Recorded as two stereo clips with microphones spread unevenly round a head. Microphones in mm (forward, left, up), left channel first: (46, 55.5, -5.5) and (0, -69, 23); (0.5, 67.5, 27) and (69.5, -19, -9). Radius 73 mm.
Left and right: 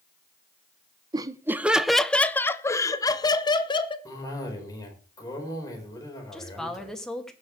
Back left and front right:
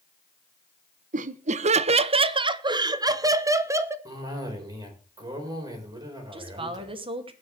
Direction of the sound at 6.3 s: 15° right.